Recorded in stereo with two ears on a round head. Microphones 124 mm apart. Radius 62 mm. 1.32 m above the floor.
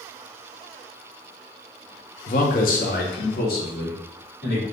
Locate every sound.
2.3 s a man speaking: 50° left (ahead or behind), 0.6 m; by 4.6 s 65° left (ahead or behind), 1.8 m